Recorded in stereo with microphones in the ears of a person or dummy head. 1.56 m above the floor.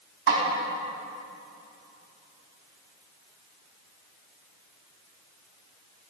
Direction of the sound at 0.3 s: 55° right (ahead or behind).